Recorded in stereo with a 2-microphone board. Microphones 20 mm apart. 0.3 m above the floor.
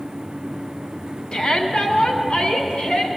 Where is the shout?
45° left (ahead or behind), 2.5 m; by 3.1 s 55° left (ahead or behind), 4 m.